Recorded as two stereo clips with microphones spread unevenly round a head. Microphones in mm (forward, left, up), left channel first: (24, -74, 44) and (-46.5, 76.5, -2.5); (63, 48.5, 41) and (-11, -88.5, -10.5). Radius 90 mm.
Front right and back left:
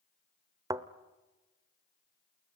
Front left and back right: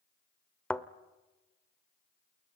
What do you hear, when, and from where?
0.7 s a thud: 30° left, 0.8 m